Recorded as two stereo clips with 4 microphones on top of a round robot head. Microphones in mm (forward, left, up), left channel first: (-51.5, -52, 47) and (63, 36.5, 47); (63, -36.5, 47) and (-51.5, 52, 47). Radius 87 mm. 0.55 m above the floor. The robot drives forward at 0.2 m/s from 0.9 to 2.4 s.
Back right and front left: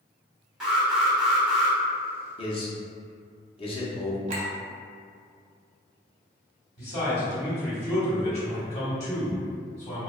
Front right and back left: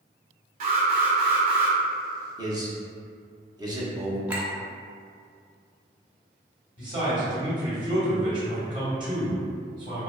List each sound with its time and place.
0.6 s an alarm: 125° left, 0.9 m; by 1.8 s 130° left, 1.0 m
2.4 s a man speaking: 170° right, 0.8 m
4.3 s a clink: 65° left, 0.7 m
6.8 s a man speaking: 165° right, 1.7 m